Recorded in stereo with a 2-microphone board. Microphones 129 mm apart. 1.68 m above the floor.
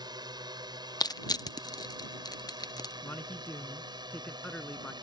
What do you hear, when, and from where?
0.0 s a drone: 35° right (ahead or behind)
1.0 s crushing: 30° left (ahead or behind)
3.0 s a man speaking: 10° left (ahead or behind)